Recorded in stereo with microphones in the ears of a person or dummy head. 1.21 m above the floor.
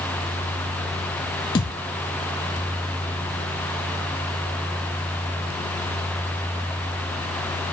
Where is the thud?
25° left (ahead or behind), 0.6 m.